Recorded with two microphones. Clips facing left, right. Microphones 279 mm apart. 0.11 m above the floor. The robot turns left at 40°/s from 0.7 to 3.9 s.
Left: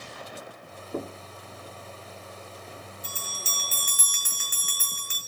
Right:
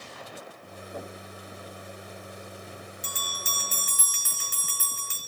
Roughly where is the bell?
Right.